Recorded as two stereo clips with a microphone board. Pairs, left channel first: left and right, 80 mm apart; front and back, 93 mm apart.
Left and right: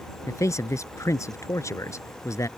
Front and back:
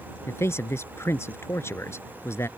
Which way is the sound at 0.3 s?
50° left.